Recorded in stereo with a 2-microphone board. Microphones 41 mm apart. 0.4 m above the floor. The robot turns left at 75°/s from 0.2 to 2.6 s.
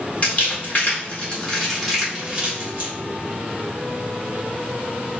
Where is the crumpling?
30° left (ahead or behind), 1.8 m; by 2.9 s 30° right (ahead or behind), 1.8 m.